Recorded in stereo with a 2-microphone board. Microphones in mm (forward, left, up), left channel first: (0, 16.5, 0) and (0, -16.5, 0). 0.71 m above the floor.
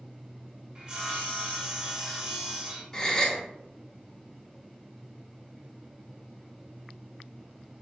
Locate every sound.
0.8 s sawing: 25° right (ahead or behind), 1.3 m
2.9 s a gasp: 20° left (ahead or behind), 0.6 m